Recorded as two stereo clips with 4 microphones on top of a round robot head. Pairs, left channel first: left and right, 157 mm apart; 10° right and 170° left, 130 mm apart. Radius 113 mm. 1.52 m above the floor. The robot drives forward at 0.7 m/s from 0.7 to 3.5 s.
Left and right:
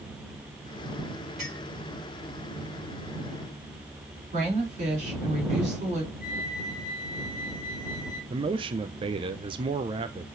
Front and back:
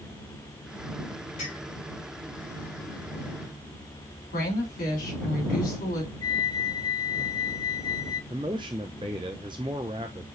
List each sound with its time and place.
1.4 s a clink: straight ahead, 5.5 m
4.3 s a woman speaking: 35° right, 4 m
6.2 s a flute: 50° left, 1.3 m
8.3 s a man speaking: 130° right, 0.5 m